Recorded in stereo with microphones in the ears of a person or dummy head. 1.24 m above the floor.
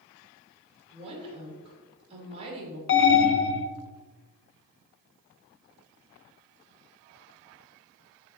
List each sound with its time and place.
0.9 s a woman speaking: 30° right (ahead or behind), 2.5 m
2.9 s an alarm: 60° left (ahead or behind), 0.9 m